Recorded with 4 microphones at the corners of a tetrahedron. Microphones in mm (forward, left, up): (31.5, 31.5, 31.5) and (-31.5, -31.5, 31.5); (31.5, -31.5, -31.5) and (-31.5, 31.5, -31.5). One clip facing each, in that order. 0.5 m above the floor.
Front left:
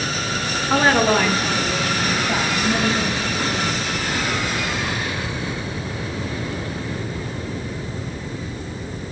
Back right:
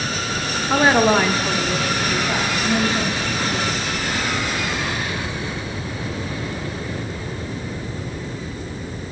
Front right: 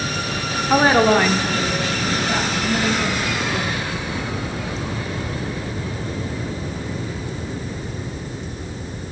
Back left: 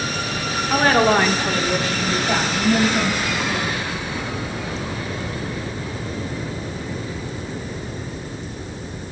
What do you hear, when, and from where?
0.7 s a woman speaking: 45° right, 0.9 m; by 3.8 s 165° left, 4 m